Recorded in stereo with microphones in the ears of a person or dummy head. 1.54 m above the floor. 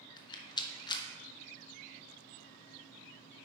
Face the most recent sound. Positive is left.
turn(degrees=20)  # may be behind; listen again after turning